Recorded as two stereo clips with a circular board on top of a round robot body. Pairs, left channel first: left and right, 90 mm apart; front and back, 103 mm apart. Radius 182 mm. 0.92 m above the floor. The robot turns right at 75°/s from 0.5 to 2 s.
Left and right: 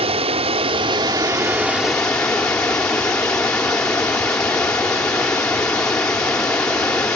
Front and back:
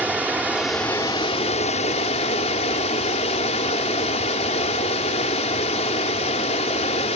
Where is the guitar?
I don't hear a guitar.